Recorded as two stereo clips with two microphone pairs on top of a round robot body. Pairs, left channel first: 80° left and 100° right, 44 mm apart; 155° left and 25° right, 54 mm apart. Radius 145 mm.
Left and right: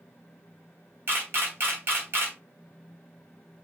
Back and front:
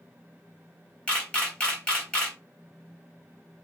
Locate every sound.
1.1 s a camera shutter: 130° right, 0.9 m